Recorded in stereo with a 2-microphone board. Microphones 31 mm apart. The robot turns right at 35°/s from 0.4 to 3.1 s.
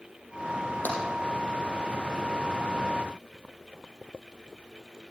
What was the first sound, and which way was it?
Tapping, 65° left (ahead or behind).